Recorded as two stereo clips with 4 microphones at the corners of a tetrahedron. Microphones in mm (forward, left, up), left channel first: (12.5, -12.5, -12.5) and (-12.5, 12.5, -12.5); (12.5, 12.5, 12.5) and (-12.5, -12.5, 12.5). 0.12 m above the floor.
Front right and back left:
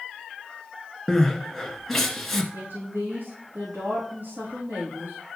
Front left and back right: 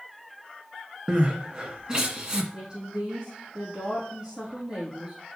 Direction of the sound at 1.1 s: 125° right.